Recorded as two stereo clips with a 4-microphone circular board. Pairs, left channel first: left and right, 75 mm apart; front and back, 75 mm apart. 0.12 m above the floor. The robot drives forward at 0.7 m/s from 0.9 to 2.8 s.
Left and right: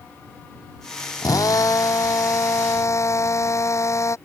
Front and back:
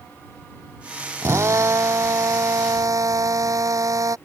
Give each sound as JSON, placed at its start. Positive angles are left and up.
{"t": 1.2, "sound": "a drill", "azimuth_deg": 130}